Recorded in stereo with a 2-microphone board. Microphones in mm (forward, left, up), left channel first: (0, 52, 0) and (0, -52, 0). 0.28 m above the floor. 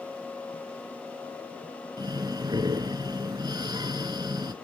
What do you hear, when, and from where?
2.0 s breathing: 40° right (ahead or behind), 0.8 m